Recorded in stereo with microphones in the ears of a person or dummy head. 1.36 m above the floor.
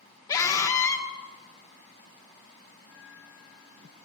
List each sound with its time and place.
0.3 s a scream: 20° left (ahead or behind), 1.3 m
2.8 s a bell: 55° left (ahead or behind), 8.5 m